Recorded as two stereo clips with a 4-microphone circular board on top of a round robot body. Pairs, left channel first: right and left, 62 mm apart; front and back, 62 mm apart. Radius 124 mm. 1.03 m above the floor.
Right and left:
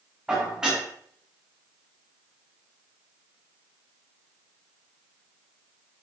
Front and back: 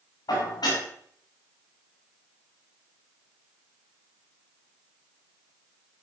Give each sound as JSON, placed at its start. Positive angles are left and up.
{"t": 0.3, "sound": "dishes clattering", "azimuth_deg": 15, "distance_m": 7.0}